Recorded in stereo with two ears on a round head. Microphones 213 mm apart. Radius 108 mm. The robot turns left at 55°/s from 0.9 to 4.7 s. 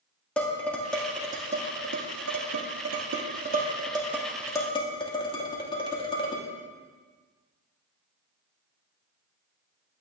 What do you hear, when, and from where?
0.4 s dishes clattering: 5° left (ahead or behind), 2.5 m; by 6.5 s 25° left (ahead or behind), 2.5 m